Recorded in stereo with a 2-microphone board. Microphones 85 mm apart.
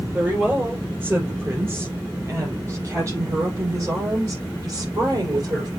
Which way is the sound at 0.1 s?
20° right (ahead or behind).